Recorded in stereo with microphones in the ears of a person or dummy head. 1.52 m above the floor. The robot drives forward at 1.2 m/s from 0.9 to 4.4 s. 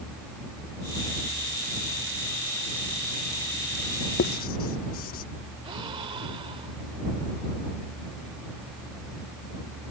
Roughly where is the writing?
Left.